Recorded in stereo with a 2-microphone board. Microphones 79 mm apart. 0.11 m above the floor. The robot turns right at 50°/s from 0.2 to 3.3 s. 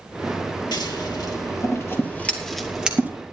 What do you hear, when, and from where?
0.7 s scissors: 60° left (ahead or behind), 3 m; by 3.1 s 20° right (ahead or behind), 3 m